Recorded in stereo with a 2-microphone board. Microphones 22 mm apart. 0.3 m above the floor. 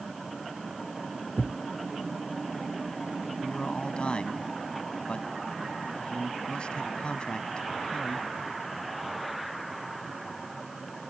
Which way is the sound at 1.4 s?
60° left (ahead or behind).